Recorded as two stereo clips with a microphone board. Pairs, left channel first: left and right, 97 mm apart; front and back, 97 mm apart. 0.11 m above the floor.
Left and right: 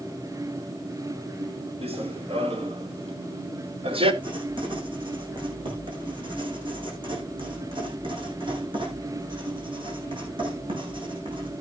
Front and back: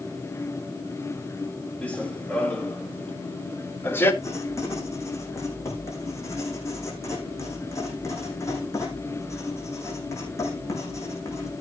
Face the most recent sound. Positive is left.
turn(degrees=-60)